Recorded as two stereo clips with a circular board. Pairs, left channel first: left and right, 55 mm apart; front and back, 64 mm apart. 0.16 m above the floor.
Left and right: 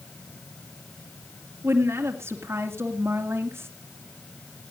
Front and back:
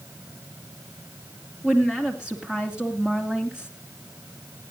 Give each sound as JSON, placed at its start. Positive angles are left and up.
{"t": 1.6, "sound": "a woman speaking", "azimuth_deg": -105, "distance_m": 2.5}